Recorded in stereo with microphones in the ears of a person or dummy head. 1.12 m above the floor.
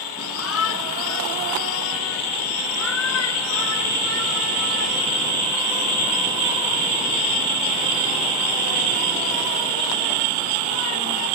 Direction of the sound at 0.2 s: 80° left.